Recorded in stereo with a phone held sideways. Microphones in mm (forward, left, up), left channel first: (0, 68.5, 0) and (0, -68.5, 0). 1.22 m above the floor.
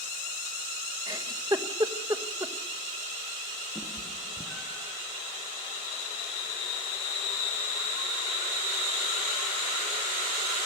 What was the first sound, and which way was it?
A giggle, 30° right (ahead or behind).